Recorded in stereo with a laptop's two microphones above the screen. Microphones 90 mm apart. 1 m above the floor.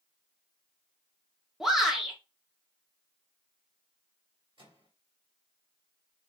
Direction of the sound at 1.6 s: 5° right (ahead or behind).